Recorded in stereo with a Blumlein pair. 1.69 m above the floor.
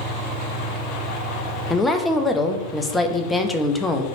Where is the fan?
10° right, 1.1 m.